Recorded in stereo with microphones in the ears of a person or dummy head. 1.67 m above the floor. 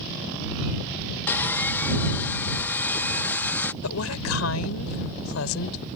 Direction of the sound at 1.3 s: 10° left (ahead or behind).